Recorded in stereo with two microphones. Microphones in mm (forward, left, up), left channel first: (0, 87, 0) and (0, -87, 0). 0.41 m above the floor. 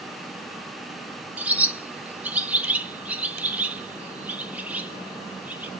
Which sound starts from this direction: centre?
A bird, at 1.4 s.